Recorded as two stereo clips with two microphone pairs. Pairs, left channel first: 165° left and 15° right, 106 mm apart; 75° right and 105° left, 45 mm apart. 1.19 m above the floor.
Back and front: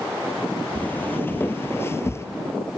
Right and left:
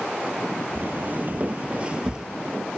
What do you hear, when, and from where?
0.8 s footsteps: 100° left, 1.5 m; by 2.3 s 155° left, 1.2 m